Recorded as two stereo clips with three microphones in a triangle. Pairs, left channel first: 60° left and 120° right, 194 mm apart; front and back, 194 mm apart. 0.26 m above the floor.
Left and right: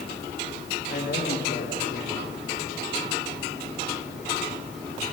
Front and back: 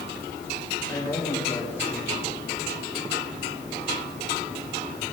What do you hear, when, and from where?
0.9 s a man speaking: 80° left, 5.5 m